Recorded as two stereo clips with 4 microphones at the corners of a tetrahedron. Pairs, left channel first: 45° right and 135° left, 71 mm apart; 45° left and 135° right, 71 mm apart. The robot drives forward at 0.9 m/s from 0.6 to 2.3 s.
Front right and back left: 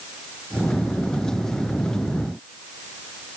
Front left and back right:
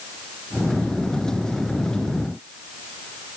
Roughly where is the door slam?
I don't hear a door slam.